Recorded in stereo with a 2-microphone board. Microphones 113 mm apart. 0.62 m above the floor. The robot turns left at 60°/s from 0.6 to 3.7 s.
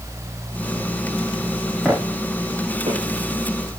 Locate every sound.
1.9 s footsteps: centre (ahead or behind), 6.5 m; by 3.8 s 60° right (ahead or behind), 6 m